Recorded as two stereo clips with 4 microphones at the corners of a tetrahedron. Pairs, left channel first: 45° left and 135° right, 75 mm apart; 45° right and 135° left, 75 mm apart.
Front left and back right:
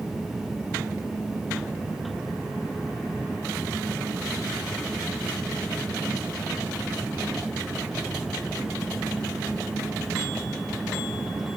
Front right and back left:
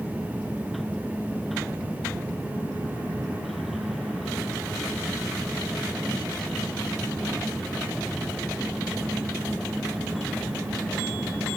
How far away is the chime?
No chime in this recording.